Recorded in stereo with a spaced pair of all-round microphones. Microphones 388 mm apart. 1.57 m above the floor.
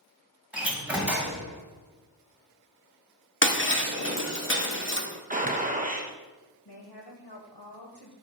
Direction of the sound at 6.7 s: 75° left (ahead or behind).